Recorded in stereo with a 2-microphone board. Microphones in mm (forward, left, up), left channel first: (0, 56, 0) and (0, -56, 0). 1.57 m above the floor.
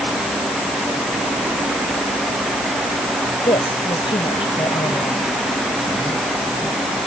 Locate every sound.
3.5 s a woman speaking: 50° left (ahead or behind)